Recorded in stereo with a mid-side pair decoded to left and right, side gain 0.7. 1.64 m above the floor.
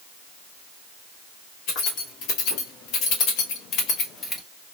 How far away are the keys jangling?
About 2.5 m.